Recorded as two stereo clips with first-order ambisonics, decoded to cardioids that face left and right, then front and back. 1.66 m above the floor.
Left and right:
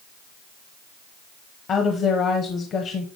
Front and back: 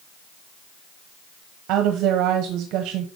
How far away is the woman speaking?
About 1.0 m.